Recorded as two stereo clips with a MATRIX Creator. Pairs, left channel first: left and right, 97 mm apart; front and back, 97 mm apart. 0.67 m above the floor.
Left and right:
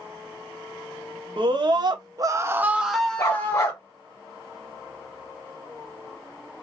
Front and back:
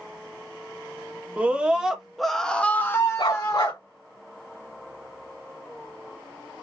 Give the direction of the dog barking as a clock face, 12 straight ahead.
11 o'clock.